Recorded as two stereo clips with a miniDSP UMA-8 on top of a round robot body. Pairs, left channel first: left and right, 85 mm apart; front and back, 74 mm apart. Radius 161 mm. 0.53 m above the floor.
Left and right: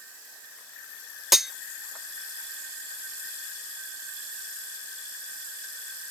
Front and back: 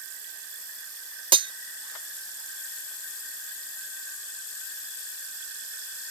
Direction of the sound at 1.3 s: Straight behind.